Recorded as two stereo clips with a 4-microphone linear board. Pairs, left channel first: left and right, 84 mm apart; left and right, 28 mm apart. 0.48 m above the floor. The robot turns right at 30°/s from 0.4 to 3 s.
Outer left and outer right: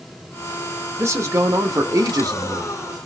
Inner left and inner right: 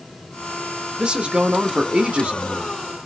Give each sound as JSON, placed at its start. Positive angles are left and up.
{"t": 1.0, "sound": "a man speaking", "azimuth_deg": -135, "distance_m": 1.0}